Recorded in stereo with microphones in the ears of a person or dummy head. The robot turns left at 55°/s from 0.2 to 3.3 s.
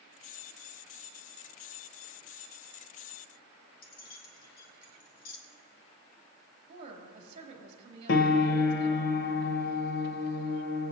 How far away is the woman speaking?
About 2.5 m.